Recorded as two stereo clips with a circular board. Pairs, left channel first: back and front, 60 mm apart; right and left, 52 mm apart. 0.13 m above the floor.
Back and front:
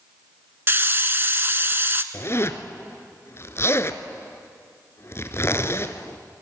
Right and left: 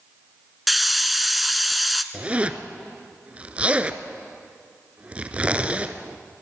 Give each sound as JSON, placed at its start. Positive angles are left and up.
{"t": 0.7, "sound": "a hiss", "azimuth_deg": 0, "distance_m": 0.8}
{"t": 2.1, "sound": "a zipper", "azimuth_deg": 150, "distance_m": 1.0}